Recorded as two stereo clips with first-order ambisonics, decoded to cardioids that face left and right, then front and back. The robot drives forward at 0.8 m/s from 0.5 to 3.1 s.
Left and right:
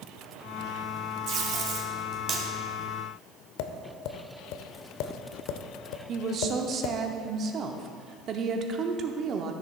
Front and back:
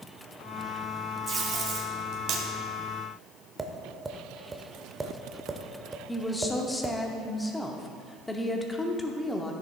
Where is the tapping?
105° left, 0.6 m.